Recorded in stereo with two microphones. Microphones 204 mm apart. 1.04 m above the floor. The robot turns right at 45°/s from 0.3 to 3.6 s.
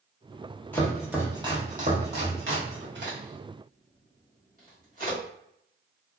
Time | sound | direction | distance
0.7 | chopping | 10° left (ahead or behind) | 1.0 m
3.0 | a crack | 60° right (ahead or behind) | 1.4 m